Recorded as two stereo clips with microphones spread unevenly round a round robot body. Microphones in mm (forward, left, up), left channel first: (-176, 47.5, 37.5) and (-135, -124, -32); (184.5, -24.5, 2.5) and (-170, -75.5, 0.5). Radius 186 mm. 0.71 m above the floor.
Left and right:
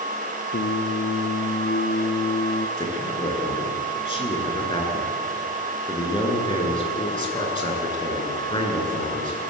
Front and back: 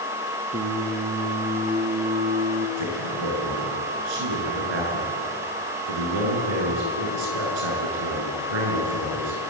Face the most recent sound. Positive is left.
turn(degrees=165)